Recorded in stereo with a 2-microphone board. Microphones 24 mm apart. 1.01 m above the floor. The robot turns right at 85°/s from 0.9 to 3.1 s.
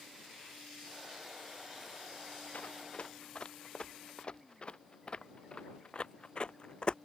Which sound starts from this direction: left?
Running footsteps, at 2.5 s.